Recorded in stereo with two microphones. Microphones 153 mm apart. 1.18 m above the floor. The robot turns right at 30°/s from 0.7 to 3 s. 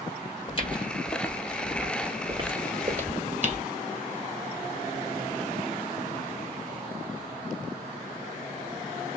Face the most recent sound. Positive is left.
turn(degrees=-45)  # may be behind; listen again after turning